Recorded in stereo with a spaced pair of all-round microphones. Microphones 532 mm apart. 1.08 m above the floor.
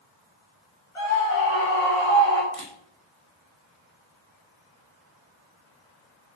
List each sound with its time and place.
0.9 s a scream: 70° left (ahead or behind), 4.5 m; by 2.4 s 80° left, 3.5 m
2.5 s a camera shutter: 75° left (ahead or behind), 2 m